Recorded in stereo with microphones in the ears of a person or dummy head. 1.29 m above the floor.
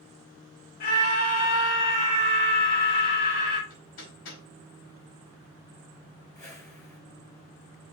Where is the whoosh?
20° left (ahead or behind), 6 m.